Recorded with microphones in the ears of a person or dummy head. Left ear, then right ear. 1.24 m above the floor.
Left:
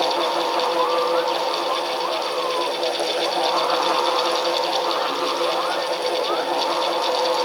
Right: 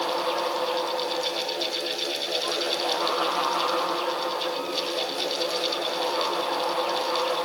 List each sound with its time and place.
Only background noise.